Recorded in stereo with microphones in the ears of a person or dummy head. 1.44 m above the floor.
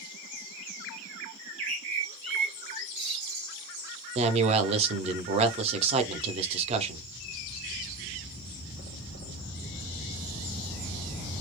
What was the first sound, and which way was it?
A bird, 35° right (ahead or behind).